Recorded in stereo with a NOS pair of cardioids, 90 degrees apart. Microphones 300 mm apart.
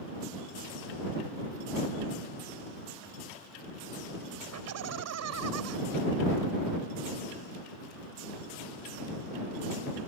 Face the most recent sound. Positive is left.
turn(degrees=-70)